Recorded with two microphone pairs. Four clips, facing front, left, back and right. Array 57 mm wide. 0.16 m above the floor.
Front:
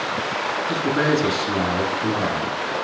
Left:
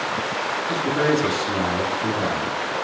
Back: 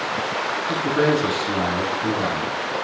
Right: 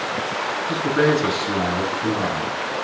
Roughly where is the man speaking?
Right.